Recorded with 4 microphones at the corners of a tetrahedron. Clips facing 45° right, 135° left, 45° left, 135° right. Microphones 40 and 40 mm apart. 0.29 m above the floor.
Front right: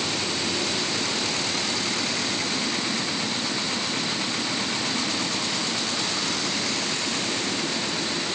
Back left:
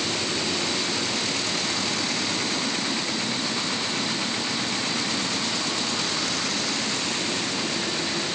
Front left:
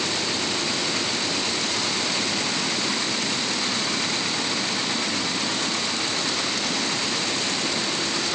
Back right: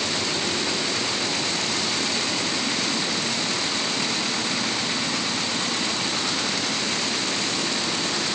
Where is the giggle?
No giggle in this recording.